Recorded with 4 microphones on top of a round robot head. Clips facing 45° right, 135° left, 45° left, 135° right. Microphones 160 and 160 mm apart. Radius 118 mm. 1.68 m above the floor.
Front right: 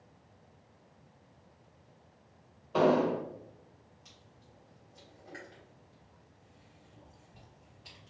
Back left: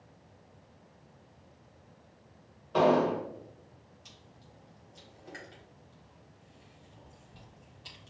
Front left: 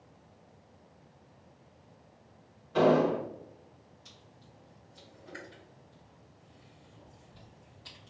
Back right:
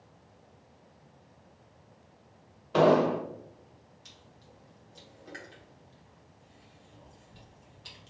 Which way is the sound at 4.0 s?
170° right.